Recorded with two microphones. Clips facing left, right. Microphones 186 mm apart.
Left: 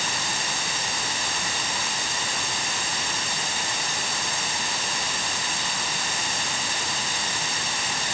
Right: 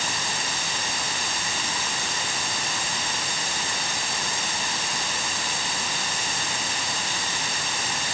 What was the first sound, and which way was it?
Only background noise.